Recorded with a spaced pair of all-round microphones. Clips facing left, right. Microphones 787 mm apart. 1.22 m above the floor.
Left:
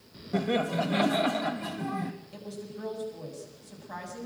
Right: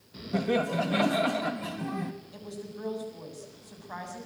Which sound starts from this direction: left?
A woman speaking, at 2.3 s.